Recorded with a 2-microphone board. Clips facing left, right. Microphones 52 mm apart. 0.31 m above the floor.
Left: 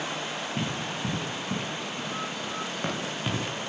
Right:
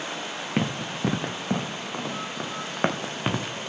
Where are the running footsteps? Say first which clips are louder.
Right 7 dB; 75° right (ahead or behind), 1.9 m; by 3.4 s 30° right (ahead or behind), 1.6 m.